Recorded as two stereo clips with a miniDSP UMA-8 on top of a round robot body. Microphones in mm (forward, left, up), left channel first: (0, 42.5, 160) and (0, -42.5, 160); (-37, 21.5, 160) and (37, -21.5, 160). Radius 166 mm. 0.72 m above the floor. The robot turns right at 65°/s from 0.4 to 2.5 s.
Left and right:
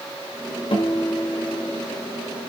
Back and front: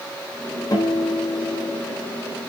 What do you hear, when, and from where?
0.7 s a guitar: 105° left, 4 m; by 1.8 s 175° left, 4 m